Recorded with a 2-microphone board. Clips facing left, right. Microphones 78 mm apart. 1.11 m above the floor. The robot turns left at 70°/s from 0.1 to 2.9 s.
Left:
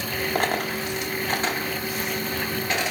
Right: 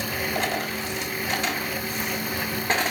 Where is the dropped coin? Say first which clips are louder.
Left 4 dB; 45° left (ahead or behind), 1.0 m; by 2.9 s 45° right (ahead or behind), 1.0 m.